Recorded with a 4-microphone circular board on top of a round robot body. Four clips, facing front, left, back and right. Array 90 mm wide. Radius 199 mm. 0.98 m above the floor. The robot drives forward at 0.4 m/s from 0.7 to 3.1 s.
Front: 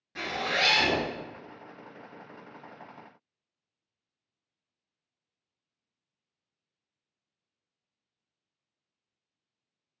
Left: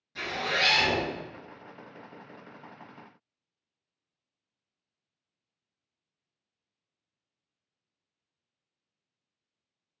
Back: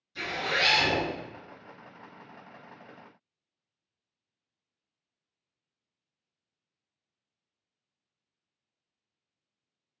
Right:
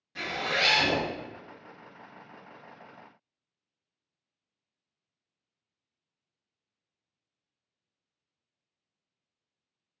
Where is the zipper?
10° right, 1.0 m.